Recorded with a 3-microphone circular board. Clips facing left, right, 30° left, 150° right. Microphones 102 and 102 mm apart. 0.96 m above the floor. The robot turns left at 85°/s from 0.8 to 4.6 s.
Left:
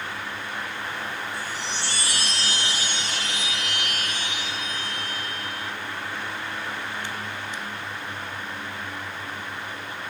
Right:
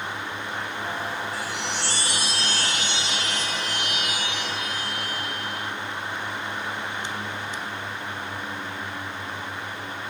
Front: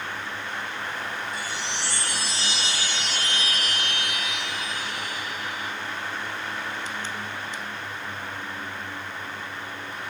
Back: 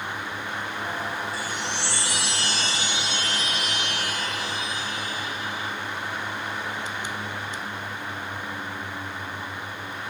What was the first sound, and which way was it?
A chime, 90° right.